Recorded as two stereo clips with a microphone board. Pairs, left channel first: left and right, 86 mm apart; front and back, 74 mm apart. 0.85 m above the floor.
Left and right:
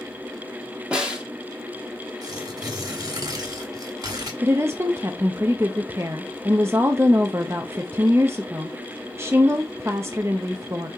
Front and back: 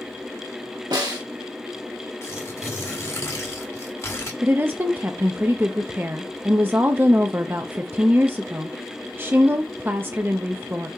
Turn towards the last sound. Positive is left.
turn(degrees=-130)